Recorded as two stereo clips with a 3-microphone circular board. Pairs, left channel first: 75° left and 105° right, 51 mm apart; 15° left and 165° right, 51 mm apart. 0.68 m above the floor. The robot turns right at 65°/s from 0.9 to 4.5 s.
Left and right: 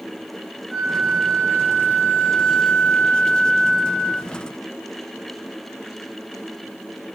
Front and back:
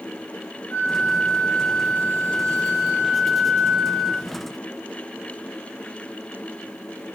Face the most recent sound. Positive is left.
turn(degrees=-145)